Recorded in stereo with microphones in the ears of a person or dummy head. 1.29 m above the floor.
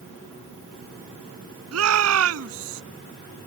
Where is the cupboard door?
No cupboard door in this recording.